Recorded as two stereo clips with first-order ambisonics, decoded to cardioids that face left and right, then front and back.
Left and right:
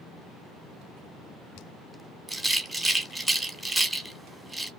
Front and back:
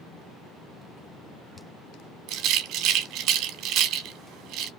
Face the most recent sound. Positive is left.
turn(degrees=-175)